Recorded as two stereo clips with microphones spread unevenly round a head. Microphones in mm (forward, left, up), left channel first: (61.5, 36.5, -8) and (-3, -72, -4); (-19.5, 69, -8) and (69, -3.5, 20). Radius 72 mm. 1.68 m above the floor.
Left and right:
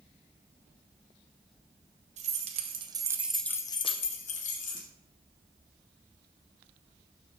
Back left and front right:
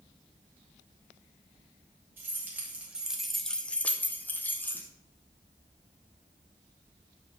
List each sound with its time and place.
2.2 s keys jangling: 105° right, 1.3 m; by 4.9 s 60° left, 1.5 m